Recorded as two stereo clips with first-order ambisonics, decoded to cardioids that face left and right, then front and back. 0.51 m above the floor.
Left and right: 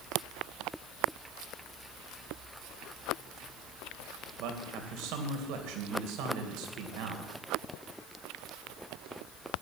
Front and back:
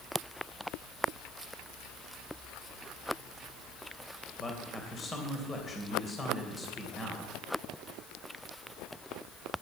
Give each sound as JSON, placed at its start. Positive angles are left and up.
{"t": 4.4, "sound": "a man speaking", "azimuth_deg": -75, "distance_m": 2.5}